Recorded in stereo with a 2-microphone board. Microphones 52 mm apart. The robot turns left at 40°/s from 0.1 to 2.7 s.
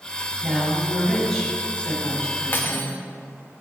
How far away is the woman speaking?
About 3 m.